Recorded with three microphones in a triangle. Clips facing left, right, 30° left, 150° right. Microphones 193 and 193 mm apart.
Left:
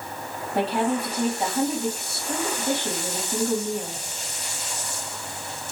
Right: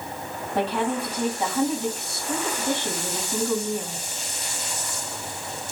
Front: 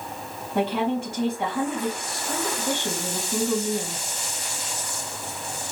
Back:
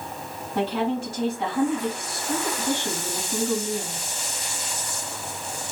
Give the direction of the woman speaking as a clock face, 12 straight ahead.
12 o'clock.